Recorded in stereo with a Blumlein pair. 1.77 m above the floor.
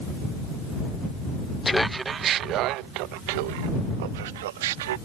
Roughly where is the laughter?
Ahead.